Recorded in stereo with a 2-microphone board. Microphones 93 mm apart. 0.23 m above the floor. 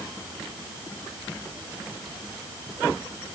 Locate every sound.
Only background noise.